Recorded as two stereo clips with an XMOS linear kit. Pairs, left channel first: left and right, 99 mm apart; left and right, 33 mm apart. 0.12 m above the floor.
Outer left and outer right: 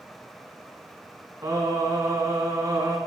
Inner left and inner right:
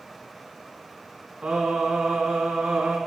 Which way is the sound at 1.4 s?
40° right (ahead or behind).